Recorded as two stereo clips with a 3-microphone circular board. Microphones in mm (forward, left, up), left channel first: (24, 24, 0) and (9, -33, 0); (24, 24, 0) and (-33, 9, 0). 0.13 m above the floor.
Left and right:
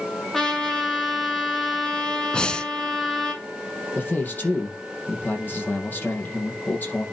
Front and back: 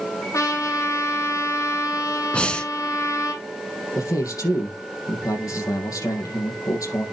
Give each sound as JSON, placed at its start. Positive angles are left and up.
{"t": 0.3, "sound": "a trumpet", "azimuth_deg": -5, "distance_m": 2.5}
{"t": 2.3, "sound": "breathing", "azimuth_deg": 35, "distance_m": 0.9}
{"t": 4.0, "sound": "a man speaking", "azimuth_deg": 20, "distance_m": 4.0}